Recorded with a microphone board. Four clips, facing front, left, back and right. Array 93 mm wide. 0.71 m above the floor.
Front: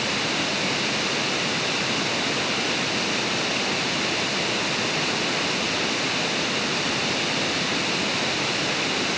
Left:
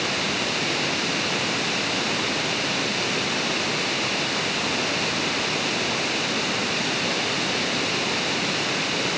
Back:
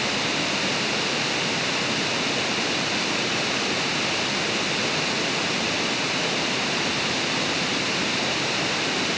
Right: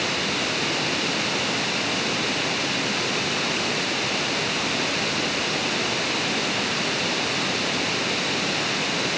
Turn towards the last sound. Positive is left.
No sound to turn to.